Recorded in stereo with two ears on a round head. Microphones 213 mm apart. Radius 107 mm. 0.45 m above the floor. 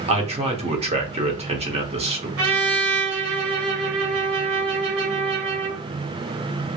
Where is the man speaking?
25° right (ahead or behind), 0.8 m.